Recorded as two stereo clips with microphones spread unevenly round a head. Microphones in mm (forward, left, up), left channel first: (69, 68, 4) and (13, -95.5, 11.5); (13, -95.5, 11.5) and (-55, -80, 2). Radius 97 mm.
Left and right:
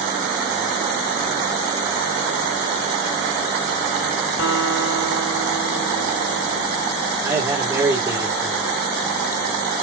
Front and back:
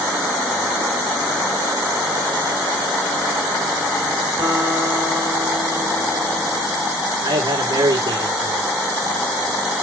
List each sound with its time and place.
4.4 s a guitar: 95° left, 5 m
7.2 s a man speaking: straight behind, 2 m